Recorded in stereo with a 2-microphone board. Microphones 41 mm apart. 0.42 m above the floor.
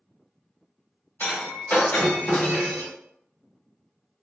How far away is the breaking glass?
About 1.4 m.